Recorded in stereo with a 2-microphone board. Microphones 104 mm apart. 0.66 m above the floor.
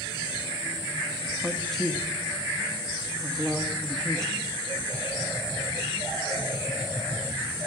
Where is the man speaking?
5° left (ahead or behind), 1.3 m.